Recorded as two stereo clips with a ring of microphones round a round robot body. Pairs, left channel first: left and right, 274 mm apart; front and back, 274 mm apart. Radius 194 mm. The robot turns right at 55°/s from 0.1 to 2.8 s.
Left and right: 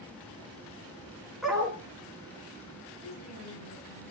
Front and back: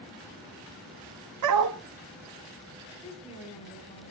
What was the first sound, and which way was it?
A dog barking, straight behind.